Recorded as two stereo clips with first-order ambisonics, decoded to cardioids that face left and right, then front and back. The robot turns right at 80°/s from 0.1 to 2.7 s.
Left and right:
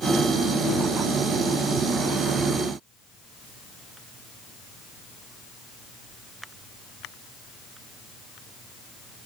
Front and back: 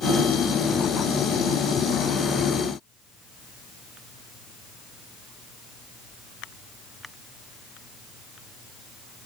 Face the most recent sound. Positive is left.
No sound to turn to.